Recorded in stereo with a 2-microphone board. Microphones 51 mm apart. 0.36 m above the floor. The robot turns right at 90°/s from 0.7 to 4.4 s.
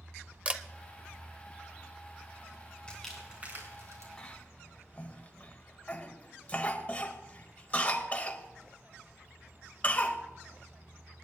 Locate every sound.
0.5 s a camera shutter: 25° right (ahead or behind), 0.7 m
2.9 s crumpling: 20° left (ahead or behind), 4 m; by 4.1 s 75° right (ahead or behind), 4 m
4.2 s a cough: 15° left (ahead or behind), 1.4 m; by 10.2 s 25° left (ahead or behind), 1.4 m